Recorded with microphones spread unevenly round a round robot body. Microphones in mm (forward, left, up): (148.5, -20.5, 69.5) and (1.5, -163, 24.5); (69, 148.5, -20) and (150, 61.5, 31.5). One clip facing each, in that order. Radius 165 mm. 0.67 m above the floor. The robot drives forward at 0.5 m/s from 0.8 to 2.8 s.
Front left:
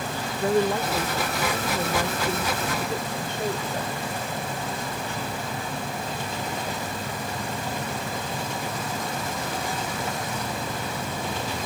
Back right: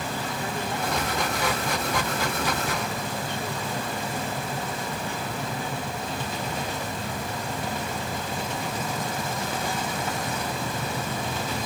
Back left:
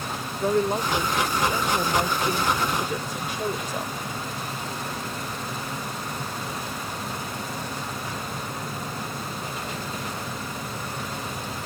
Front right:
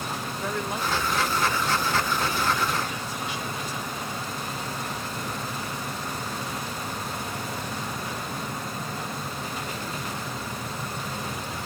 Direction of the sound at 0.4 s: 85° left.